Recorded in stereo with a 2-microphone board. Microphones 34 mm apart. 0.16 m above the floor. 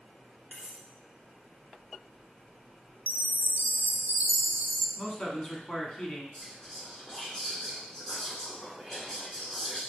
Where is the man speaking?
25° left (ahead or behind), 1.2 m.